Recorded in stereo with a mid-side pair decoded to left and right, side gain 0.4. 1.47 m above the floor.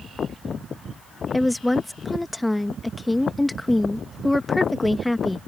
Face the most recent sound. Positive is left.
turn(degrees=15)